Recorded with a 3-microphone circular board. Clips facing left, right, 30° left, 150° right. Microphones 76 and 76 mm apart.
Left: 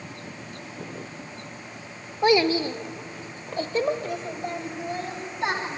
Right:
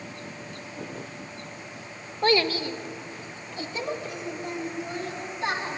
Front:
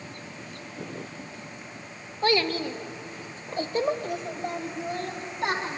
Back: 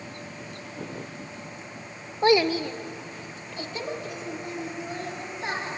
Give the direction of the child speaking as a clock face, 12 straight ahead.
7 o'clock.